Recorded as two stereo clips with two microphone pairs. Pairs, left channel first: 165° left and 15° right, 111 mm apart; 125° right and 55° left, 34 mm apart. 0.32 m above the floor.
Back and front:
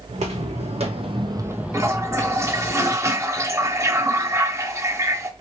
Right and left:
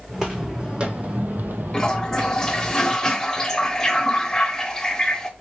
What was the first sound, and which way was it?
Footsteps, 20° right.